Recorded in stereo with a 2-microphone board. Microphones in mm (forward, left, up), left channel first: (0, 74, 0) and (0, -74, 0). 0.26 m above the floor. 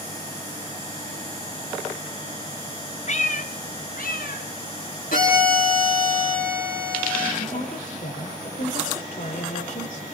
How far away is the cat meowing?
About 1.0 m.